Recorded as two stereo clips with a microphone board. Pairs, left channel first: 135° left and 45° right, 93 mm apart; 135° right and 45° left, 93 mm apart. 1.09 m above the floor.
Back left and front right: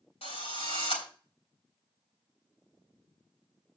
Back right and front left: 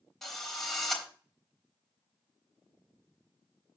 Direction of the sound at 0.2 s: 140° left.